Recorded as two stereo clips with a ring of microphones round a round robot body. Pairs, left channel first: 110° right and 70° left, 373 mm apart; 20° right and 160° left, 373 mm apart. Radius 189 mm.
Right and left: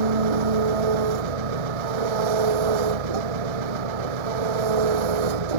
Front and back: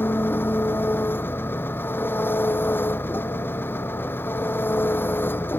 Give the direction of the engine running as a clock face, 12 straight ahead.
10 o'clock.